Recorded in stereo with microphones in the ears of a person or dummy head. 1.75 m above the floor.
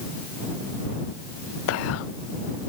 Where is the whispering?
75° left (ahead or behind).